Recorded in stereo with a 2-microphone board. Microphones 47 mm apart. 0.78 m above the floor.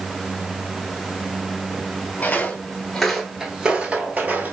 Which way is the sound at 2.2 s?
35° left (ahead or behind).